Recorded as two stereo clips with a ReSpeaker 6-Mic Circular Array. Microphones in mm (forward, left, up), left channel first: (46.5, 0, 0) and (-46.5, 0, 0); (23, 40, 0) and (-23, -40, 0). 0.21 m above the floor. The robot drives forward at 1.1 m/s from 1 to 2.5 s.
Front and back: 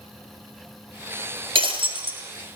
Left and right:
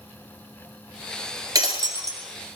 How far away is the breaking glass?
About 1.8 m.